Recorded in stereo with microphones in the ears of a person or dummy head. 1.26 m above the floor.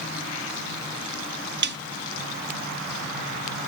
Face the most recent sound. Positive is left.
turn(degrees=-60)  # may be behind; listen again after turning